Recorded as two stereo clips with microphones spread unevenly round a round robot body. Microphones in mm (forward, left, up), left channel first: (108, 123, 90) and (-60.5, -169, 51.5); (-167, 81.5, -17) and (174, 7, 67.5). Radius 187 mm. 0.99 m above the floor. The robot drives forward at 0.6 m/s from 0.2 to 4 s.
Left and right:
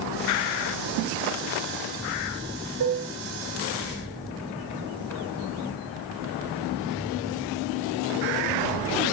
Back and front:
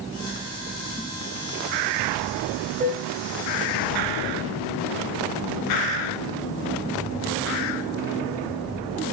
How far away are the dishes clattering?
About 3.5 m.